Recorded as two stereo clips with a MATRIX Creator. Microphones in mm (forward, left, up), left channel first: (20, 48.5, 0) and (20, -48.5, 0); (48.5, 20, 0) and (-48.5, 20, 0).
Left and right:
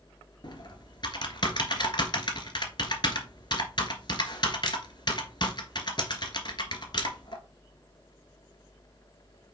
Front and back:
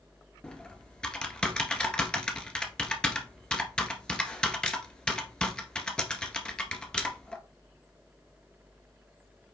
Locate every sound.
0.4 s typing on a keyboard: 80° left, 1.5 m